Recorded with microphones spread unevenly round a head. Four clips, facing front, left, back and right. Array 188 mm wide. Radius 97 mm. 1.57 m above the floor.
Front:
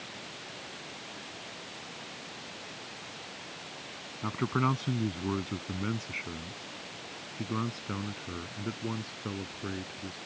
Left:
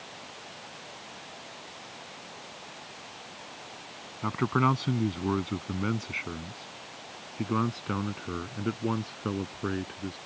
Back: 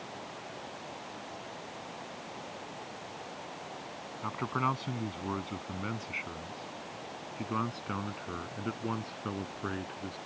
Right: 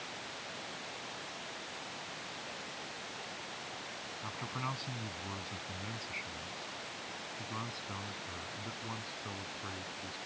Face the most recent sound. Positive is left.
turn(degrees=95)